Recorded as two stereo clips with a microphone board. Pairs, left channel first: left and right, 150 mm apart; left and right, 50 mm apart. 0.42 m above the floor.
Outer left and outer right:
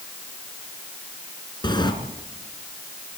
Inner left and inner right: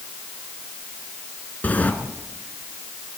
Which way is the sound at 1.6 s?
30° left (ahead or behind).